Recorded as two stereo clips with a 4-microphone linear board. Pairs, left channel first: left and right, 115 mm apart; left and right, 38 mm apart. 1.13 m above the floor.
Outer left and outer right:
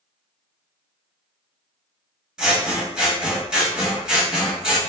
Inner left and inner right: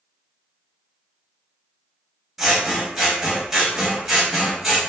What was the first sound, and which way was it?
Scissors, 5° right (ahead or behind).